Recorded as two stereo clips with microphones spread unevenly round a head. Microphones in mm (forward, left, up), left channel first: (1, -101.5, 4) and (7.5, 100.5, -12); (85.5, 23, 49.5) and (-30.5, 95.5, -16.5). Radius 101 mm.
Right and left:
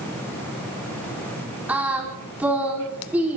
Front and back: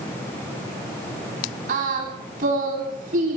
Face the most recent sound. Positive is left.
turn(degrees=170)